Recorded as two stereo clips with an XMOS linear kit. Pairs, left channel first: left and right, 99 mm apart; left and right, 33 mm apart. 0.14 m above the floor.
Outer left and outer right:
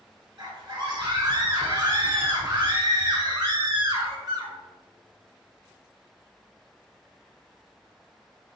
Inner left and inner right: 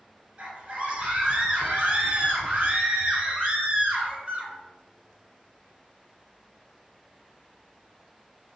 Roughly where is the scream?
Right.